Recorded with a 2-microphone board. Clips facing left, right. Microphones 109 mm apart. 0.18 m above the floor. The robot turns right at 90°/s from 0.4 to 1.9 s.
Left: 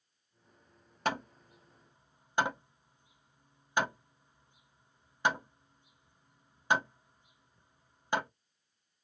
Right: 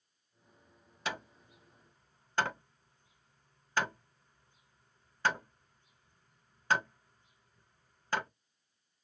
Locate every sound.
1.1 s hammering: 50° left (ahead or behind), 0.6 m; by 8.3 s 15° left (ahead or behind), 0.6 m